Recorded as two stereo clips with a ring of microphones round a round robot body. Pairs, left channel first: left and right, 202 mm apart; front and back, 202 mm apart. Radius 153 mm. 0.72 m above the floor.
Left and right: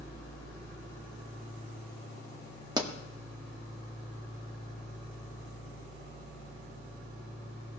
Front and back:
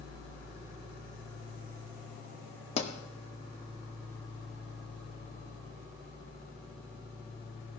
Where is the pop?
35° right, 1.2 m.